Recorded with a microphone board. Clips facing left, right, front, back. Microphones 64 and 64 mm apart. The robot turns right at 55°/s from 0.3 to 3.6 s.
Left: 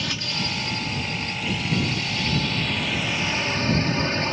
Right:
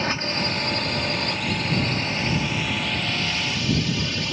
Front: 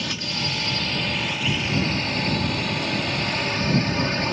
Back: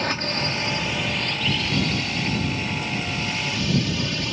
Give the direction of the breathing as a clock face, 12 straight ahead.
No breathing in this recording.